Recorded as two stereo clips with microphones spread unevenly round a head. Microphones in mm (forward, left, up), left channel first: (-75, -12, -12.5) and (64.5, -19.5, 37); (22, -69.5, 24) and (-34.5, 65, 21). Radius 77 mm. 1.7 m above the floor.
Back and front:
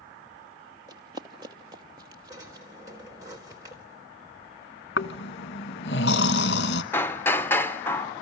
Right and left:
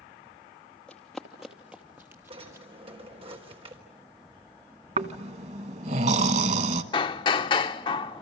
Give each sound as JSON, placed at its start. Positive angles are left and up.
{"t": 0.9, "sound": "running footsteps", "azimuth_deg": 15, "distance_m": 2.5}
{"t": 2.3, "sound": "a drawer", "azimuth_deg": 60, "distance_m": 3.5}
{"t": 5.0, "sound": "snoring", "azimuth_deg": 150, "distance_m": 1.3}
{"t": 6.9, "sound": "hammering", "azimuth_deg": -85, "distance_m": 0.7}